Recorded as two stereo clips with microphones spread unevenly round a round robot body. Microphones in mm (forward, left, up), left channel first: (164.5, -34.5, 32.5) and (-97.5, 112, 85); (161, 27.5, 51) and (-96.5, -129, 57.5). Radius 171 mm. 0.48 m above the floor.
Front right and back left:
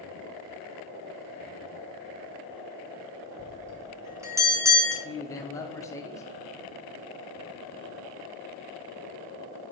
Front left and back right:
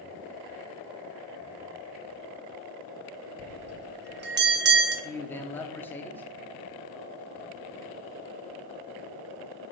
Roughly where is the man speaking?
Ahead right.